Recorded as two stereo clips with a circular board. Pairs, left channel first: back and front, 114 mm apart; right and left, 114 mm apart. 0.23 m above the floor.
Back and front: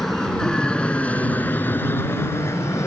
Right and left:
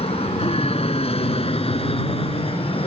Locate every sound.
0.0 s an aircraft: 95° right; by 2.9 s 115° right